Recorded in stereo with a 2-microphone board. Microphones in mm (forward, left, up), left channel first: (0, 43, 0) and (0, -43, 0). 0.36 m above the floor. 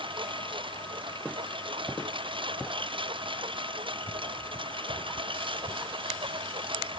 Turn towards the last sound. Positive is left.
turn(degrees=-85)